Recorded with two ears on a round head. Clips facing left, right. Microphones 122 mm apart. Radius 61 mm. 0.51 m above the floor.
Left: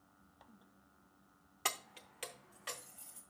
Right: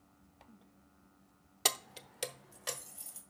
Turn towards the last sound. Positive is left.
turn(degrees=-45)  # may be behind; listen again after turning